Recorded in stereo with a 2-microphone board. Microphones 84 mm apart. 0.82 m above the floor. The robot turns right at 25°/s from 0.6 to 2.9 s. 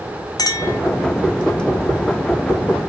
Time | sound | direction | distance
0.4 | a clink | 50° left (ahead or behind) | 0.7 m